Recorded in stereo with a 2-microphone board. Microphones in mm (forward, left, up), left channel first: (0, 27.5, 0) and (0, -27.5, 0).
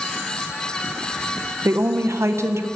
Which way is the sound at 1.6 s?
55° right (ahead or behind).